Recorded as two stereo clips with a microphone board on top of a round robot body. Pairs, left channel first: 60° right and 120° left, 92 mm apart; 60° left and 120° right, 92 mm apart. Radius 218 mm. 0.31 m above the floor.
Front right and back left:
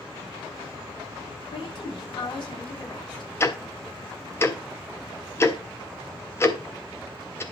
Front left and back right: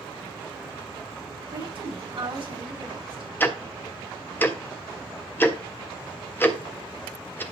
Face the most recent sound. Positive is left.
turn(degrees=-5)